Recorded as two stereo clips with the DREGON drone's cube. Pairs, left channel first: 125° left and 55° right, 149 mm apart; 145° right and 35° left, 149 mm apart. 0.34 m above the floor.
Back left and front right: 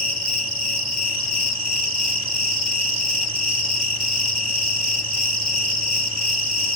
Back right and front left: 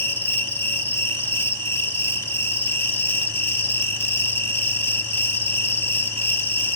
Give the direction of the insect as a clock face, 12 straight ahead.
2 o'clock.